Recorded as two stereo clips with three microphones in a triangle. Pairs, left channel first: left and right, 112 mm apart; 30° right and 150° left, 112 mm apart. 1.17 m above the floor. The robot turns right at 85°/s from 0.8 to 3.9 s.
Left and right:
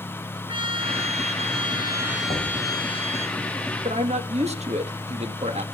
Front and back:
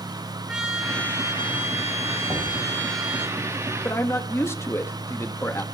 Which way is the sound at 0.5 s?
125° right.